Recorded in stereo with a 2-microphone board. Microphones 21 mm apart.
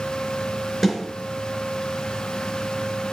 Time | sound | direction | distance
0.8 | a snare drum | 15° left (ahead or behind) | 4 m